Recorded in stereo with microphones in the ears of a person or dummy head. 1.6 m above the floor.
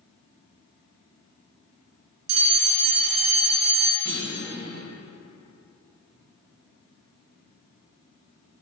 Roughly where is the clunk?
Centre.